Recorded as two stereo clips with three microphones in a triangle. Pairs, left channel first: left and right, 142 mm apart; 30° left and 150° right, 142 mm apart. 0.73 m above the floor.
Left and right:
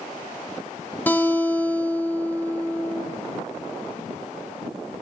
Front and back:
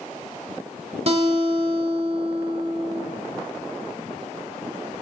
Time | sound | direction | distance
1.1 | a guitar | 170° left | 1.2 m